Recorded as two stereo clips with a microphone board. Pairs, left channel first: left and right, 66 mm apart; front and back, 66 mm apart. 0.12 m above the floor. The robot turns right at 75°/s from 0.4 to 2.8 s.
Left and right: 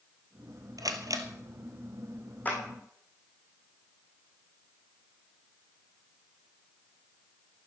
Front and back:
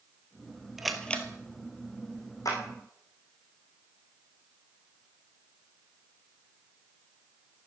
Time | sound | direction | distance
0.8 | a camera shutter | 100° right | 1.8 m
2.5 | a clap | 25° left | 5 m